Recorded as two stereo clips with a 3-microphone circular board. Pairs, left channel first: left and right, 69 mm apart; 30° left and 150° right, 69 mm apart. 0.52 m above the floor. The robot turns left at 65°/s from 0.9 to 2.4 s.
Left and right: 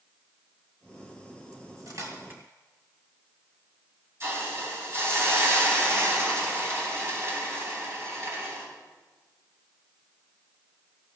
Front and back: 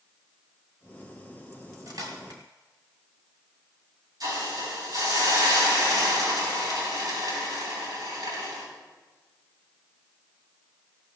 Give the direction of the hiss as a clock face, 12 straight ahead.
5 o'clock.